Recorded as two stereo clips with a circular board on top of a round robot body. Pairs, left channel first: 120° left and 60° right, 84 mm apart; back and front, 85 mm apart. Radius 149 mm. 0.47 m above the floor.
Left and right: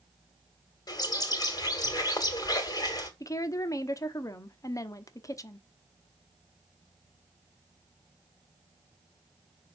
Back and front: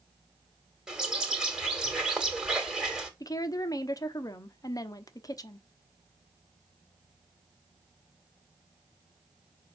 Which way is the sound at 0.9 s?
80° left.